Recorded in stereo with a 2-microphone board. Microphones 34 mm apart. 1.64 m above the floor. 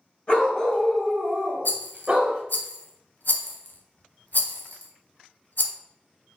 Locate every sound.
0.3 s a dog barking: 30° left (ahead or behind), 2 m; by 2.4 s 35° right (ahead or behind), 1.8 m
1.6 s a rattle: 60° left (ahead or behind), 0.8 m